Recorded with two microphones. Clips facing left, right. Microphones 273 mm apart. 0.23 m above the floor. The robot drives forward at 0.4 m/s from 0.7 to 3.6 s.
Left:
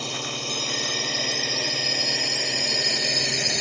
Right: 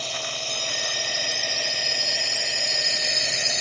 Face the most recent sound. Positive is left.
turn(degrees=65)  # may be behind; listen again after turning